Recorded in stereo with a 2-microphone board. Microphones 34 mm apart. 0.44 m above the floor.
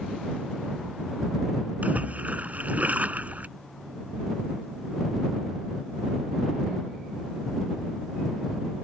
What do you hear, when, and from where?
1.8 s a splash: 50° right (ahead or behind)